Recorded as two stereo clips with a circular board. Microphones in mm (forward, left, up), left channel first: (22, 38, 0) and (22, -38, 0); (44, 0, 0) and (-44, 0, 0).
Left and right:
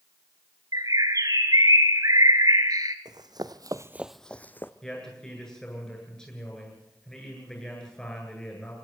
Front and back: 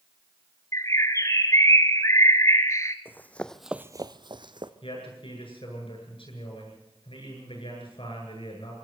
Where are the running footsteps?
65° right, 1.5 m; by 4.7 s 150° left, 1.4 m.